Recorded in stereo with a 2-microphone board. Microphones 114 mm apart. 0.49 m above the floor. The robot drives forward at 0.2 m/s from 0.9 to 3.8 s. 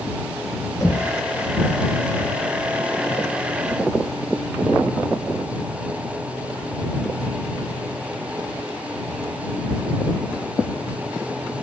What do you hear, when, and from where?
0.8 s knocking: 30° left (ahead or behind), 1.1 m